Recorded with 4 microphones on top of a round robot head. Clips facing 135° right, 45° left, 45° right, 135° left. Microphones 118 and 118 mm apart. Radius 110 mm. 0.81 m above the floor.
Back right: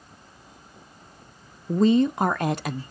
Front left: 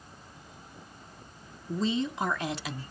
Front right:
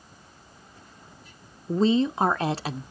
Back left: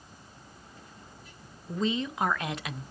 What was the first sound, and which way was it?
A woman speaking, 100° right.